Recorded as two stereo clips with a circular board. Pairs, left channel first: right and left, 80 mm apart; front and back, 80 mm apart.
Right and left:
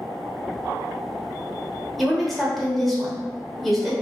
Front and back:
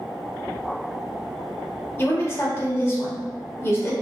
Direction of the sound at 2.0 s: 5° right.